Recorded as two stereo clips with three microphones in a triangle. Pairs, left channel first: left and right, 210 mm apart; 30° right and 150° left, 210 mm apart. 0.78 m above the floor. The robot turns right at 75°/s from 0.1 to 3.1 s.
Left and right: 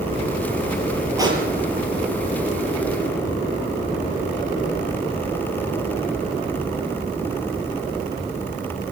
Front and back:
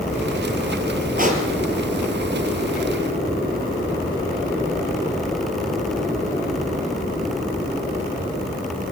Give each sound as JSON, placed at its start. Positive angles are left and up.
{"t": 1.2, "sound": "a pop", "azimuth_deg": -165, "distance_m": 3.0}